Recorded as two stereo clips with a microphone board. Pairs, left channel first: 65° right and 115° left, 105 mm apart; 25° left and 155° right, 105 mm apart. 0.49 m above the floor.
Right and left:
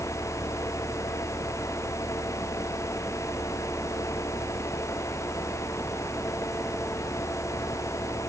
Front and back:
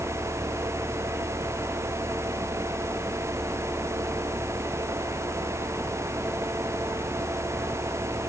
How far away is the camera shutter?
I don't hear a camera shutter.